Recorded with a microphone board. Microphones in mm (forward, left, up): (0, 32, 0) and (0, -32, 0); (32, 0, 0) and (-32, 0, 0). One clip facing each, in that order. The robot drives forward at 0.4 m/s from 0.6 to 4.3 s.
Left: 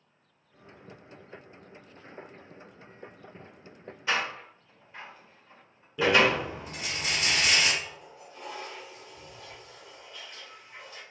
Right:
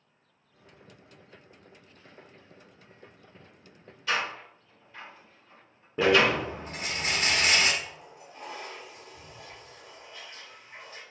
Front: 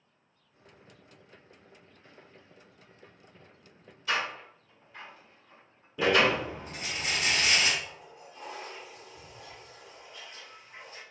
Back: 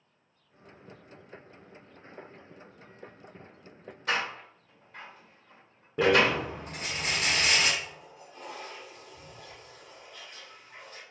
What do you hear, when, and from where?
4.1 s a door slam: 155° left, 1.9 m
6.0 s a rattle: 140° right, 0.9 m
7.8 s a toilet flushing: 155° right, 2 m